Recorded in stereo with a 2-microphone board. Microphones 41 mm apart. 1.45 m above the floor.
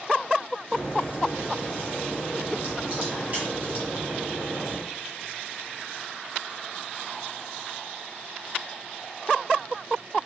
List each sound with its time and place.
0.7 s a crack: 35° right (ahead or behind), 1.2 m